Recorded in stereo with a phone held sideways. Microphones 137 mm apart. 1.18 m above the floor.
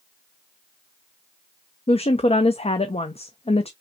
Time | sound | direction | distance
1.9 | a woman speaking | 50° left (ahead or behind) | 0.5 m